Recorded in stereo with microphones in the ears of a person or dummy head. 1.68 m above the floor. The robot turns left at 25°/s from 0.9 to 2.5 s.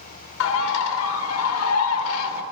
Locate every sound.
0.4 s a bird: 105° left, 0.6 m; by 2.4 s 65° left, 0.6 m